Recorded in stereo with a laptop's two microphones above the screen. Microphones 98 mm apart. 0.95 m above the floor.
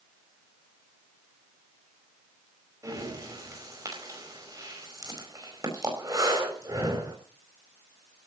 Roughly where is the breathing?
Right.